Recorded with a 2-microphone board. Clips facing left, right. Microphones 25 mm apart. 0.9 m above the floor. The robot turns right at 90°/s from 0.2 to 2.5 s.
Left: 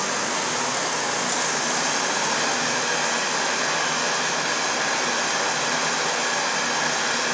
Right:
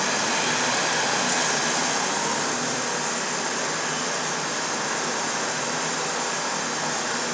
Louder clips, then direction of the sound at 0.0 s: Right 1 dB; 135° right.